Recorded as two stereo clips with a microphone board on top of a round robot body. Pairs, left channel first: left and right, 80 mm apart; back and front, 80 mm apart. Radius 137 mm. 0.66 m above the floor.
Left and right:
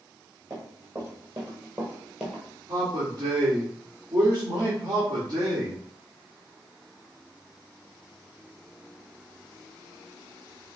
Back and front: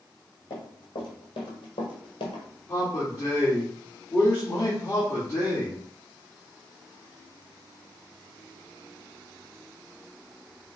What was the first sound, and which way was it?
Running footsteps, 145° right.